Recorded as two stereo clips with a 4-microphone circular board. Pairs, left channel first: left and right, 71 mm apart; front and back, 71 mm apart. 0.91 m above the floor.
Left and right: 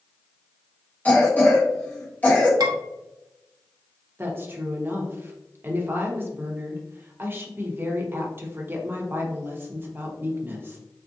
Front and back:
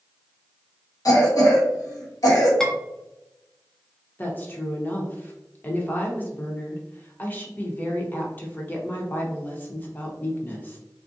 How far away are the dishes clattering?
About 0.8 m.